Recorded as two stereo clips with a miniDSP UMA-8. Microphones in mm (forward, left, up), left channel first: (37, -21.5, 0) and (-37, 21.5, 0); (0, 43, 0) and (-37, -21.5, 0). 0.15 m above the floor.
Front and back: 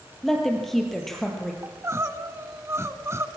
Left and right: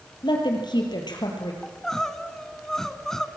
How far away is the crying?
About 0.9 m.